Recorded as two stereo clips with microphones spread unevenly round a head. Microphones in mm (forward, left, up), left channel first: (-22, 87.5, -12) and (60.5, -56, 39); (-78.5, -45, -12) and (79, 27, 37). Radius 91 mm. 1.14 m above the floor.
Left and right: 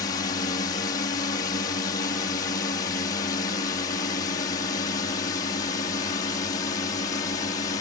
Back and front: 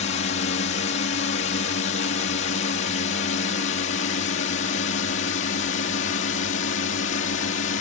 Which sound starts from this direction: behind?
A drone, at 0.0 s.